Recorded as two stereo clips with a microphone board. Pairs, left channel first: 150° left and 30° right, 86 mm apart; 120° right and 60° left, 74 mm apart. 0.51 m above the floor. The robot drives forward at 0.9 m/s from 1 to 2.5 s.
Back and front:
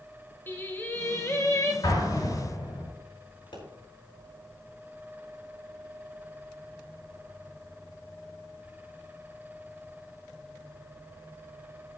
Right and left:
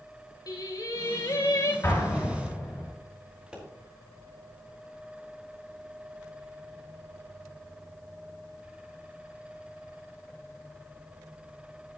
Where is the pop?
135° left, 5 m.